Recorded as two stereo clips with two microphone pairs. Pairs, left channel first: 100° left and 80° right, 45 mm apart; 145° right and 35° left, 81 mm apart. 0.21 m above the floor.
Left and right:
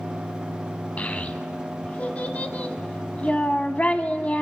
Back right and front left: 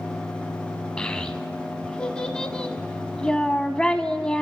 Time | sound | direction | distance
1.0 | a child speaking | 140° left | 0.8 m